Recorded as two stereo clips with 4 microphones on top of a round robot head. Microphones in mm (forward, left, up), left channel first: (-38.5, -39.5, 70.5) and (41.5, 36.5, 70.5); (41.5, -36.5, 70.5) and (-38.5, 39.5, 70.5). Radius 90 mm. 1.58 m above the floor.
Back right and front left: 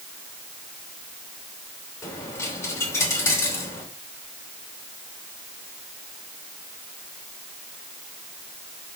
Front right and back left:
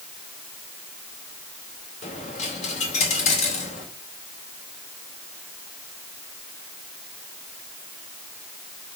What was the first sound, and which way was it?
A dropped coin, 70° right.